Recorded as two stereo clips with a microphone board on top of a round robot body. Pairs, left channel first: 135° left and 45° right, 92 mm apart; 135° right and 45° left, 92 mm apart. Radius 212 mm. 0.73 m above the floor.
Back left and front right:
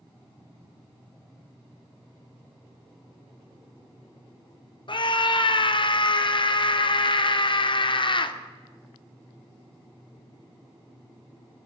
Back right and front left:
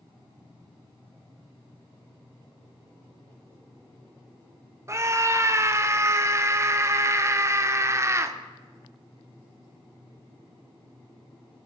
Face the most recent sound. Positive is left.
turn(degrees=105)